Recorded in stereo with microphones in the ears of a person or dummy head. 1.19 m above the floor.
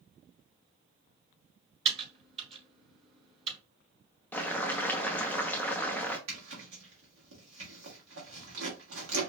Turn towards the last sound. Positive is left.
turn(degrees=-80)